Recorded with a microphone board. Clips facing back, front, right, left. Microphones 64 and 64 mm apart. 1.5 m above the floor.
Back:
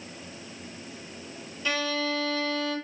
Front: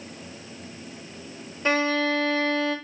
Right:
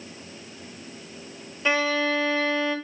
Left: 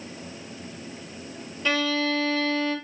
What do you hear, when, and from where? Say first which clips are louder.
1.6 s a violin: front 6 dB, right 2 dB; 25° right, 1.4 m